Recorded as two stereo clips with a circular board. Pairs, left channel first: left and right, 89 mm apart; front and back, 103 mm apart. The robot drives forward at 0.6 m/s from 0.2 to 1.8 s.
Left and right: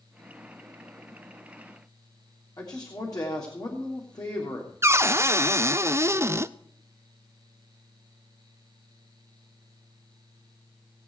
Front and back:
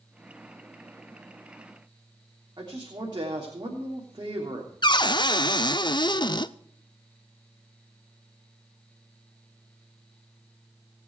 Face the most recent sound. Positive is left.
turn(degrees=-35)